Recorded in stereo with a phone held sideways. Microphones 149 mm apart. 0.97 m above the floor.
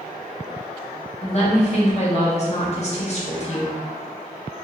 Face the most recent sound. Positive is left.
turn(degrees=45)  # may be behind; listen again after turning